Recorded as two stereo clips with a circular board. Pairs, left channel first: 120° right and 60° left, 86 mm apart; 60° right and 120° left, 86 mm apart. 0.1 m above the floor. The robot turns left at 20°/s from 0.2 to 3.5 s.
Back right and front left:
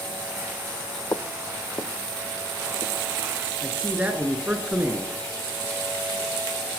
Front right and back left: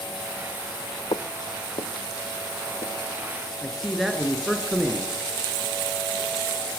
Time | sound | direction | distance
1.1 | footsteps | 70° right | 0.7 m
3.6 | a man speaking | 35° left | 1.5 m